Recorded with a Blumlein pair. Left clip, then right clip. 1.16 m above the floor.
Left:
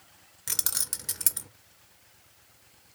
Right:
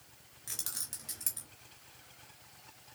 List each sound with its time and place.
0.5 s keys jangling: 60° left, 0.6 m